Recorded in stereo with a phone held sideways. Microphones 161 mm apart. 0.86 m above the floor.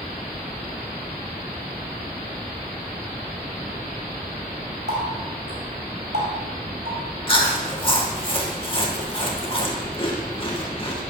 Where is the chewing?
35° left (ahead or behind), 1.5 m.